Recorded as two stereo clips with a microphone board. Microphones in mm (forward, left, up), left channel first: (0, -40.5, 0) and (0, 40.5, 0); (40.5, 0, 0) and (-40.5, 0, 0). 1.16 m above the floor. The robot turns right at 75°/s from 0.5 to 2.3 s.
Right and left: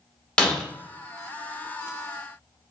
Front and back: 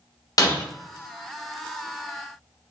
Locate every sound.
0.4 s breaking glass: 15° right, 1.0 m; by 0.6 s 5° right, 1.0 m